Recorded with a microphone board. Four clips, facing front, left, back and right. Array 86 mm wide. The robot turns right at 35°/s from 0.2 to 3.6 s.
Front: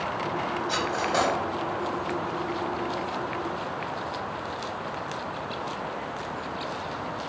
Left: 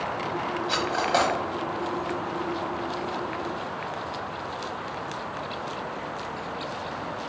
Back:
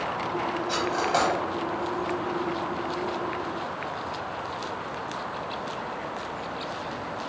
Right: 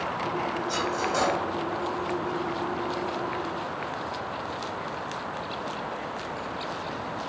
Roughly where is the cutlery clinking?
Left.